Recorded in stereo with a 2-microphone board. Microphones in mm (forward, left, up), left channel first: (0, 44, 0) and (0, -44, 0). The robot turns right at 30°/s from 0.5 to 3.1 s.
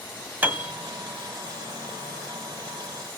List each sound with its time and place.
0.4 s a piano: 20° right (ahead or behind), 1.7 m; by 0.7 s 15° right (ahead or behind), 1.7 m